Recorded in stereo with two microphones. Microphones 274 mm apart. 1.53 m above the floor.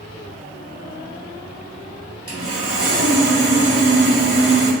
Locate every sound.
2.3 s sawing: 55° right (ahead or behind), 1.0 m